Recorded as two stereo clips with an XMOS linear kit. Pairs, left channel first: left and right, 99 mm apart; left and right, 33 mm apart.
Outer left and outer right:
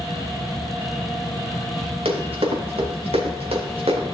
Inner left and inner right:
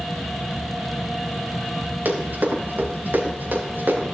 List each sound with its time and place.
2.0 s running footsteps: 70° right (ahead or behind), 4.5 m